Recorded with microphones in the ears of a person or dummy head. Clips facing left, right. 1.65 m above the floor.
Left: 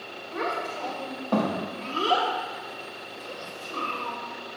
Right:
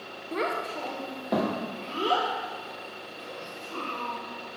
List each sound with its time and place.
0.3 s a child speaking: 45° right (ahead or behind), 0.7 m; by 4.2 s 10° left (ahead or behind), 2.5 m